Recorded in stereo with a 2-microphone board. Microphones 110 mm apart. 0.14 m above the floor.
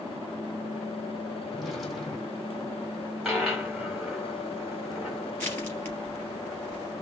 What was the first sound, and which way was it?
A drawer, centre (ahead or behind).